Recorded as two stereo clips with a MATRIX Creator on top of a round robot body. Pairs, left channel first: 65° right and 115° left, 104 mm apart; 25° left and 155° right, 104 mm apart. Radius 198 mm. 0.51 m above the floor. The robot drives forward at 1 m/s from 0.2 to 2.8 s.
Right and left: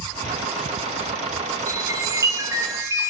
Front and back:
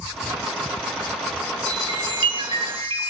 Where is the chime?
165° left, 2 m; by 3.1 s 170° left, 3 m.